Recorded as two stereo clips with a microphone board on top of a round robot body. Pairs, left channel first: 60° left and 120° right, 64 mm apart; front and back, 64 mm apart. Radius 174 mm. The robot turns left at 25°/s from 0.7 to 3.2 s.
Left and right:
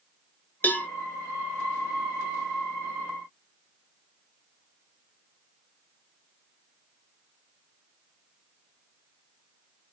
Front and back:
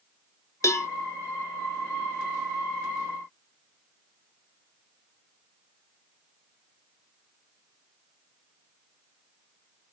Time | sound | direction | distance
0.6 | a cowbell | 10° left | 0.7 m